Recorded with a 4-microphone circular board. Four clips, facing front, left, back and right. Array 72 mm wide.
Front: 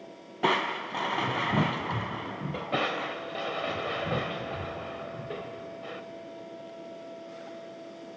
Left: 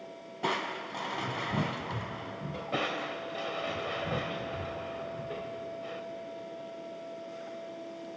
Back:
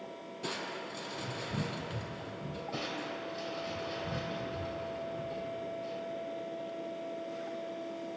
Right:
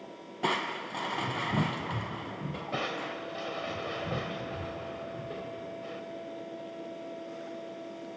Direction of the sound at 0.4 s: 10° right.